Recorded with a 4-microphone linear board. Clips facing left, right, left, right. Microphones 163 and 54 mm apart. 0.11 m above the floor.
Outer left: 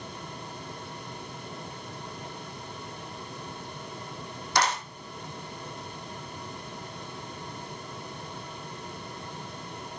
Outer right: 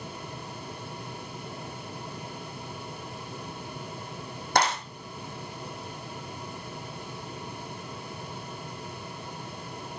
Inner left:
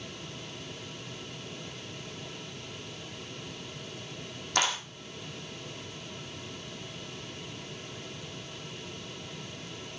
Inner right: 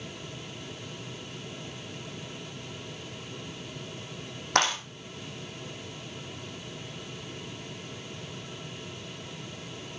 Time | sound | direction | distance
4.5 | a clap | 55° right (ahead or behind) | 4.5 m